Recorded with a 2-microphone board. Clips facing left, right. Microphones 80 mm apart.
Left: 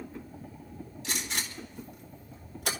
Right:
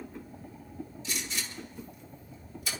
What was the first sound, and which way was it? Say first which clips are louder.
A gunshot: left 4 dB; 70° left (ahead or behind).